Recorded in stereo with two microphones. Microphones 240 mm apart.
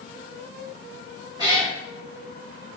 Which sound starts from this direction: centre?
A cat meowing, at 1.4 s.